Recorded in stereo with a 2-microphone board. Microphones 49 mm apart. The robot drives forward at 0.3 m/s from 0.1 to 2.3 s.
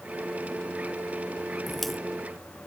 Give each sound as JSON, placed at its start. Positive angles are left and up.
{"t": 1.7, "sound": "a crack", "side_deg": 5}